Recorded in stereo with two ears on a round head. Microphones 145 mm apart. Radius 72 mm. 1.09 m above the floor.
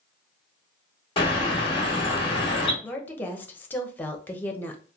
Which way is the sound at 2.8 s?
10° left (ahead or behind).